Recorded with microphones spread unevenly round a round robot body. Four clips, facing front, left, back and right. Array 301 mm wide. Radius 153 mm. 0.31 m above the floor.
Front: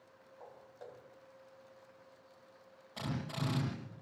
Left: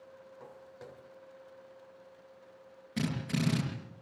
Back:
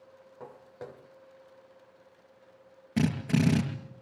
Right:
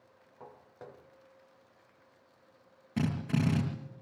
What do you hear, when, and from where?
0.4 s footsteps: 175° right, 3.5 m
3.0 s a drill: 170° right, 5 m